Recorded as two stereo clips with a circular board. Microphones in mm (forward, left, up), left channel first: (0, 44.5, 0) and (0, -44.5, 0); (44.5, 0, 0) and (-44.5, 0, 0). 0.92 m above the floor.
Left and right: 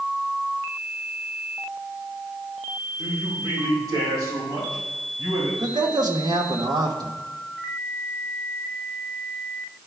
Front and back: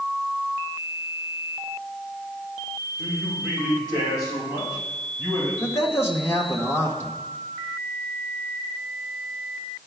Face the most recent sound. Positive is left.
turn(degrees=-60)